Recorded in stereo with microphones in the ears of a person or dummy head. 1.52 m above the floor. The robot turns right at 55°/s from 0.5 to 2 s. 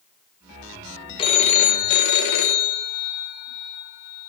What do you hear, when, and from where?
1.2 s a phone ringing: 30° left (ahead or behind), 0.9 m; by 4.3 s 60° left (ahead or behind), 0.9 m